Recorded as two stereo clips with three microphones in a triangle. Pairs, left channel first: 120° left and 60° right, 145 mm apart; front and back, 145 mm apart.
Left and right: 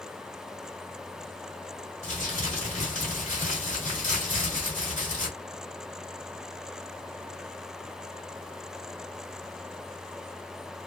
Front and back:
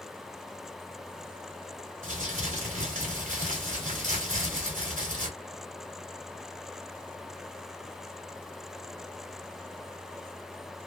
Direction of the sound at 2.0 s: 150° left.